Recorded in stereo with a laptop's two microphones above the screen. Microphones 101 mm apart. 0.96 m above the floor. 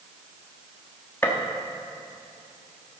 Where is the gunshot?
20° left (ahead or behind), 1.2 m.